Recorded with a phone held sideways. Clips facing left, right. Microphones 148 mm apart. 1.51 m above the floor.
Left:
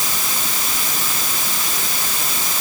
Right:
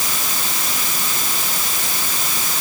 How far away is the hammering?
No hammering in this recording.